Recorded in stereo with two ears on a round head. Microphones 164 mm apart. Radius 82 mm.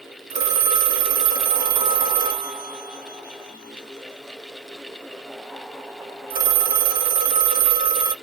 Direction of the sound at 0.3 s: 55° right (ahead or behind).